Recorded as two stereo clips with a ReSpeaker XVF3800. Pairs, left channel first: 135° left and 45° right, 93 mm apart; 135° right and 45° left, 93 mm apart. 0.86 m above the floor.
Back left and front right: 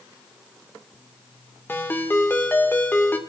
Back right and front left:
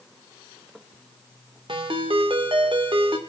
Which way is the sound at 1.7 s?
70° left.